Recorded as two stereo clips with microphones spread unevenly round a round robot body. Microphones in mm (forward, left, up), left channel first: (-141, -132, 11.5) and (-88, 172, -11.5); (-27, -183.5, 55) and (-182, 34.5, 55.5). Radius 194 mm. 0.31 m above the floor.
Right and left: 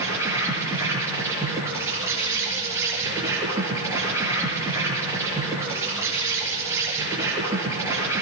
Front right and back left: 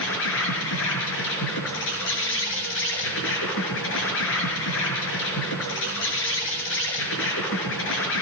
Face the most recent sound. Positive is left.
turn(degrees=-5)